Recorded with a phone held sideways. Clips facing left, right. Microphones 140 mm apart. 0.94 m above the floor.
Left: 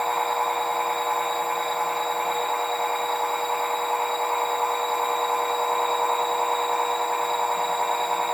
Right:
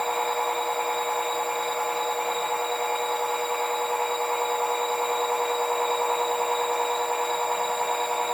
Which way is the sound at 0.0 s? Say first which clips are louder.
Left 2 dB; 55° left (ahead or behind).